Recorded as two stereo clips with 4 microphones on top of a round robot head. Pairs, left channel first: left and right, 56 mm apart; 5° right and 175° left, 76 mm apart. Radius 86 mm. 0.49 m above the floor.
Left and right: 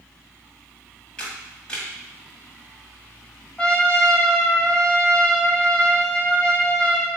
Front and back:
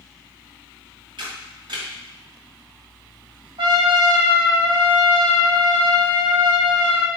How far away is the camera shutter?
About 2 m.